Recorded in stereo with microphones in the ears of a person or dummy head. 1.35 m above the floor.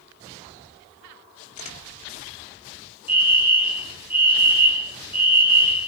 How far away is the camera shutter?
About 2 m.